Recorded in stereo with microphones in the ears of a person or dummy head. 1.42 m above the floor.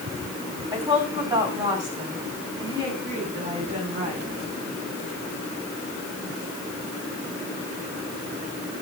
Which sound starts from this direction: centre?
A woman speaking, at 0.7 s.